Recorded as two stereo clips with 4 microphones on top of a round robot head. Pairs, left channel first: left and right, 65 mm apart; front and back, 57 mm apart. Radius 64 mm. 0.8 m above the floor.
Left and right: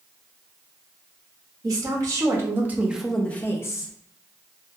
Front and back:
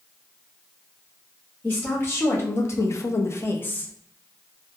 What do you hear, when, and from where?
1.6 s a woman speaking: 60° right, 1.1 m; by 3.9 s 60° left, 0.7 m